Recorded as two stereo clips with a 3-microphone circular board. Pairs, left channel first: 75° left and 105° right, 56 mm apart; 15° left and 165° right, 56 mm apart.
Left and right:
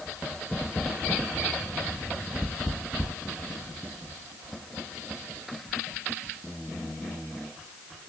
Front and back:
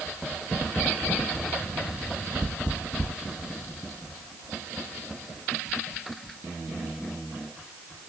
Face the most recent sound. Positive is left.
No sound to turn to.